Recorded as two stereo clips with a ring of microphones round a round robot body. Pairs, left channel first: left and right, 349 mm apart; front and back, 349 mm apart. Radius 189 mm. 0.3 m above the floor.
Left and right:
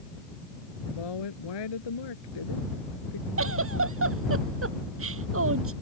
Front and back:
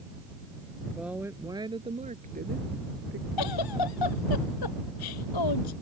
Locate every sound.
0.9 s a woman speaking: 90° left; by 3.3 s 125° left
3.4 s a giggle: 35° right